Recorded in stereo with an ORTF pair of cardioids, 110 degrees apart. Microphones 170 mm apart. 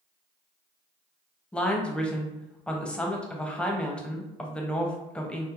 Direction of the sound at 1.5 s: 5° left.